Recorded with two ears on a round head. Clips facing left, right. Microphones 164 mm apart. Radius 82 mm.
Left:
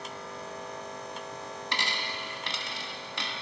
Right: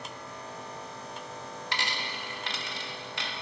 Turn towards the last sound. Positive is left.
turn(degrees=85)